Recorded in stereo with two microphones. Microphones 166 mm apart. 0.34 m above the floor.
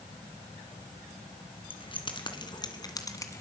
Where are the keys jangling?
35° left (ahead or behind), 3 m; by 3.4 s 20° left (ahead or behind), 1.9 m.